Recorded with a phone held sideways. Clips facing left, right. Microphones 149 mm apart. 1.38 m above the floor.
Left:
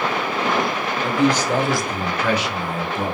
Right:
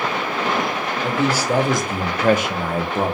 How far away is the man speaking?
About 0.8 m.